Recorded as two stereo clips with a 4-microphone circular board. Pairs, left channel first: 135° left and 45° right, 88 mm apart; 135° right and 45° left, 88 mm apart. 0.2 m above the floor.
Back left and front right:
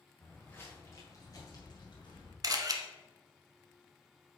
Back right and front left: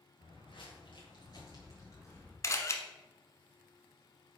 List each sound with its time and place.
0.2 s footsteps: 150° right, 2.5 m; by 2.3 s 165° left, 3 m
2.4 s a camera shutter: 85° right, 0.9 m